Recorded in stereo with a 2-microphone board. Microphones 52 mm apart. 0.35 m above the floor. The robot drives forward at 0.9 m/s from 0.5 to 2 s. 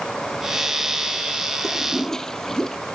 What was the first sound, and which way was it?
A toilet flushing, 10° left (ahead or behind).